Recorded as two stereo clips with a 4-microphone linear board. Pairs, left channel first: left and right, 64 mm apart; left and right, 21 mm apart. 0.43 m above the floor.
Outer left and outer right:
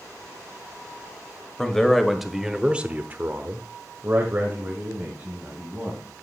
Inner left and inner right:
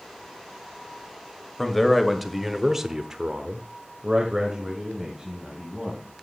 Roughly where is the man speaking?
Centre.